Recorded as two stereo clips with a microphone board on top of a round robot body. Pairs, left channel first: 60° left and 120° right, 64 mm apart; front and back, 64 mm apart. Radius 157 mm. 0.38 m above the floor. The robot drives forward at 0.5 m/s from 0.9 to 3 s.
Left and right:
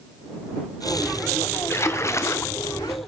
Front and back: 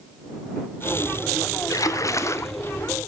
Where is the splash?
20° left, 0.9 m; by 2.5 s 35° left, 0.6 m.